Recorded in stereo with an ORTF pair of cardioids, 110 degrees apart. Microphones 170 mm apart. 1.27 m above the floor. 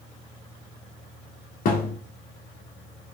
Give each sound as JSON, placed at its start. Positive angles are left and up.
{"t": 1.6, "sound": "a thud", "azimuth_deg": 60, "distance_m": 1.7}